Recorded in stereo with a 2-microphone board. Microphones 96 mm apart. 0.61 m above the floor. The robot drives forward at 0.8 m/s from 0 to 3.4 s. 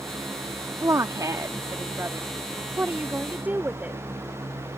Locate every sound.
0.8 s a woman speaking: 30° right (ahead or behind); by 4.0 s 15° right (ahead or behind)